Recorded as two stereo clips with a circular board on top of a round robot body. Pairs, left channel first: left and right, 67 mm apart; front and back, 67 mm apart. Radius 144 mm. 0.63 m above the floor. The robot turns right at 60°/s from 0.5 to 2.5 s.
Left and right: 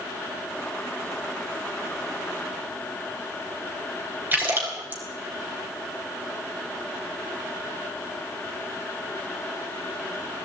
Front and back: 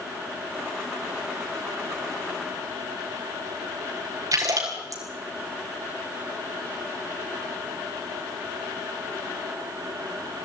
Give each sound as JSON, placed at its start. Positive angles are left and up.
{"t": 4.3, "sound": "a splash", "azimuth_deg": -150, "distance_m": 4.5}